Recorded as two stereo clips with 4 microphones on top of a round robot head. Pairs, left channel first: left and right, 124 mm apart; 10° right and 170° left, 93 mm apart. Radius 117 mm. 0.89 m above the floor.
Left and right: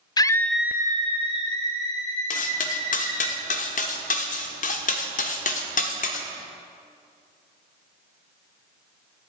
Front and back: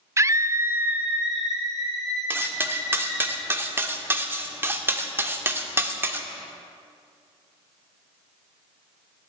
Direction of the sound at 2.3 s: 105° left.